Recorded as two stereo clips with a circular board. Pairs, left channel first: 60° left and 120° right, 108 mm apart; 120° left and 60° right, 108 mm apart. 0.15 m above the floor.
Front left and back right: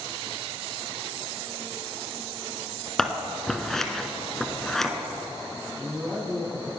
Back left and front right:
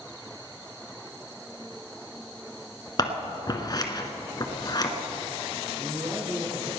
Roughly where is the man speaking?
Ahead right.